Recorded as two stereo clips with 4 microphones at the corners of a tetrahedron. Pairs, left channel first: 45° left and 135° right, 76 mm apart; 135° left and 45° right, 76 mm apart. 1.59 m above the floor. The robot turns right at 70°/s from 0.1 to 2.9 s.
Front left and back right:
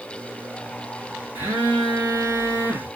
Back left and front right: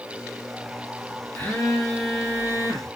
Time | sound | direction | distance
1.4 | a phone buzzing | 175° right | 1.2 m